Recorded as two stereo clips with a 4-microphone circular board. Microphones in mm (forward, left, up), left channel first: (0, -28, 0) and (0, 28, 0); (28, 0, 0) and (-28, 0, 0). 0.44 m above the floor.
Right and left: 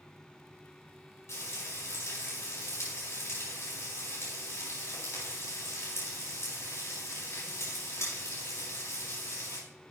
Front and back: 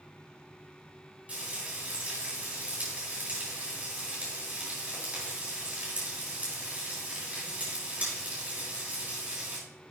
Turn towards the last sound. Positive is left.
turn(degrees=-120)